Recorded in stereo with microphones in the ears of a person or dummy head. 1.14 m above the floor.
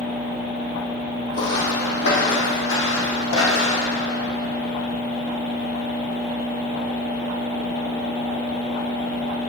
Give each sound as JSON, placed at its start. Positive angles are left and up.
{"t": 1.3, "sound": "footsteps", "side_deg": 45, "distance_m": 2.5}